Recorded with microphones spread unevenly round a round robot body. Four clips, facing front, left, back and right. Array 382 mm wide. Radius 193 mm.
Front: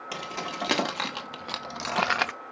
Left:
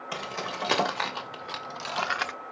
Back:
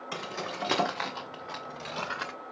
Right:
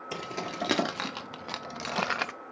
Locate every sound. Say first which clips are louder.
0.1 s keys jangling: left 1 dB, front 1 dB; 75° right, 1.6 m; by 2.3 s 15° left, 0.6 m